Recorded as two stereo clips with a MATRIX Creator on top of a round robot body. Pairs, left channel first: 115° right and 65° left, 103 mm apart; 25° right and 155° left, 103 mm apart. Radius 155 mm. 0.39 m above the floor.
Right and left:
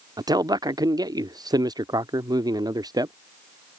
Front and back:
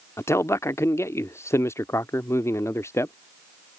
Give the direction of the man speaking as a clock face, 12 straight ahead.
11 o'clock.